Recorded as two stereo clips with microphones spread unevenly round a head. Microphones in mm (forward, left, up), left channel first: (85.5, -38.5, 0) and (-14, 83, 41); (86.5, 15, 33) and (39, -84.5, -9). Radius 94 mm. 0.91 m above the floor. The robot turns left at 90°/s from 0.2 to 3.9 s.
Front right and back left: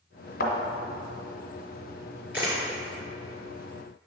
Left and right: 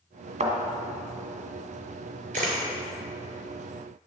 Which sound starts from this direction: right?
A thud, at 0.4 s.